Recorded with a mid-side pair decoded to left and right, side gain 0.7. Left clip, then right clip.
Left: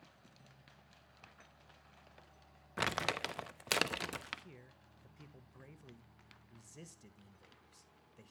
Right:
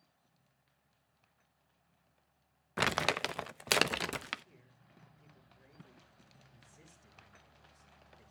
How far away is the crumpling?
About 0.6 m.